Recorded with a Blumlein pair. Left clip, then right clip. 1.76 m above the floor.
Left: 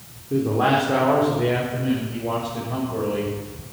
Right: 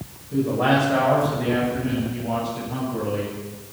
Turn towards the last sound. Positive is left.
turn(degrees=50)